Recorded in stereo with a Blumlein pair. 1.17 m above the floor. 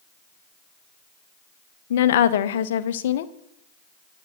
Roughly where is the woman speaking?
Ahead left.